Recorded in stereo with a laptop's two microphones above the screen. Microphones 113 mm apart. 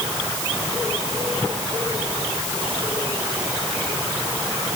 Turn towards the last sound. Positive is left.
No sound to turn to.